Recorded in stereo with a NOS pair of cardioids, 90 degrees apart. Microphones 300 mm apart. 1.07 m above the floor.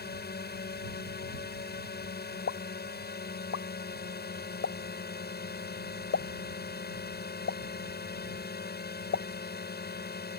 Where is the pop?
45° left.